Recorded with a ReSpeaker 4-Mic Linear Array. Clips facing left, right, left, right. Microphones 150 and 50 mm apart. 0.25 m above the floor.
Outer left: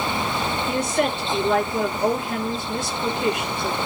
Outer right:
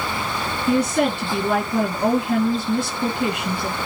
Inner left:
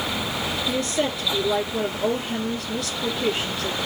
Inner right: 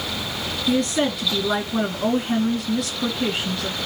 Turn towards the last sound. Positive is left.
turn(degrees=-65)  # may be behind; listen again after turning